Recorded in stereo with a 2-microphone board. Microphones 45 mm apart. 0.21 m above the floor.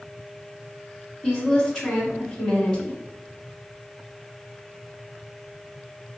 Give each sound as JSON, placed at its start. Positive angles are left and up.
{"t": 1.2, "sound": "a woman speaking", "side_deg": -5, "distance_m": 1.8}